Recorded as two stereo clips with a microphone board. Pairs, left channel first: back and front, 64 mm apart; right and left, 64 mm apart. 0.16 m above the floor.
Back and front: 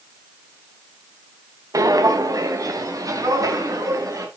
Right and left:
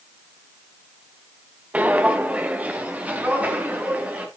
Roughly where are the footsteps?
Ahead.